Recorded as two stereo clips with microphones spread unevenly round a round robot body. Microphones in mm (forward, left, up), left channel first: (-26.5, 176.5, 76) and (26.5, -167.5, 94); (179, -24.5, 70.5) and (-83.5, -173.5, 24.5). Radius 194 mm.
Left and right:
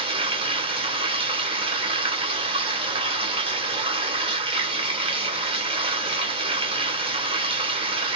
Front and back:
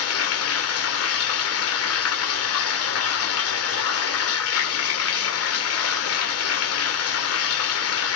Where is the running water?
5° right, 1.0 m.